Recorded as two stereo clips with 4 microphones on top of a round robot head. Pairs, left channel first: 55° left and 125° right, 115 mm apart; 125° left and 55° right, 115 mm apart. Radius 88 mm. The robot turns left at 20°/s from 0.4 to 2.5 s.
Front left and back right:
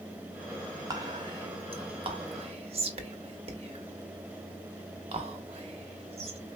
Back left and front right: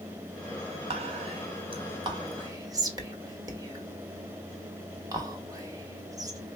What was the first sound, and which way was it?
Whispering, 75° right.